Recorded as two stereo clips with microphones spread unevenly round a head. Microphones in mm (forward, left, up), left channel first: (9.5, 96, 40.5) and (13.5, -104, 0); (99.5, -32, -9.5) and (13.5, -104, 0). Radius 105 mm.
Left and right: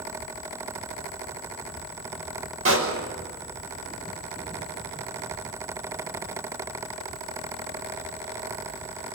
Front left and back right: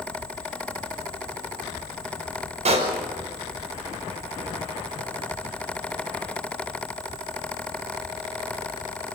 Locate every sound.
2.6 s a pop: 120° right, 5.5 m